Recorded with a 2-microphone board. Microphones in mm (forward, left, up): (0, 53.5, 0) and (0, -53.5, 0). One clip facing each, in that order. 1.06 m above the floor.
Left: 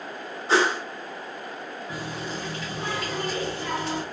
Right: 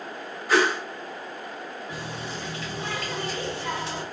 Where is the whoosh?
30° left (ahead or behind), 0.6 m.